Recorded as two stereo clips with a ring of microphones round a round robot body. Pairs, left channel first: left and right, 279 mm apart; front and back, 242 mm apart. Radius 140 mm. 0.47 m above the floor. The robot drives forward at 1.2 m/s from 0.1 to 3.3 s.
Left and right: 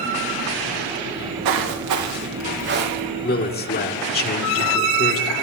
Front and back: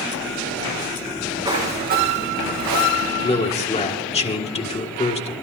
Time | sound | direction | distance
1.1 | footsteps | 95° right | 4.5 m
3.2 | a man speaking | 50° left | 1.8 m